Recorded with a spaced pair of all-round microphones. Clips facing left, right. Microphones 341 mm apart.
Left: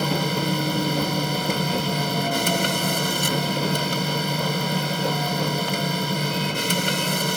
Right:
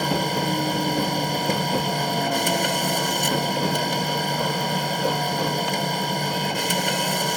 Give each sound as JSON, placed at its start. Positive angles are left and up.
{"t": 0.0, "sound": "a machine running", "side_deg": 10}